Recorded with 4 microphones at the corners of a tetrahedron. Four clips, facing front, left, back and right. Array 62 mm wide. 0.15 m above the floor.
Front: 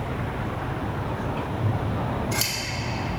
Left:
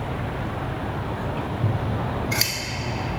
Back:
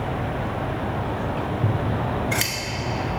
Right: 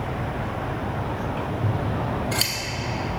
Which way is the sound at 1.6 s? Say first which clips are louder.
Even, back 3 dB; 160° left.